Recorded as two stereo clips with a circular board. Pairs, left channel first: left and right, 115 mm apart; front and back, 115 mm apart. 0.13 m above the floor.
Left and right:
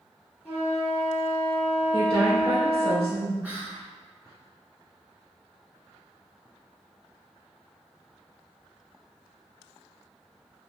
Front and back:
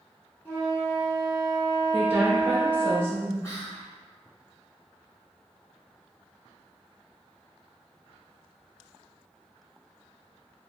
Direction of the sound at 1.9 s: 120° right.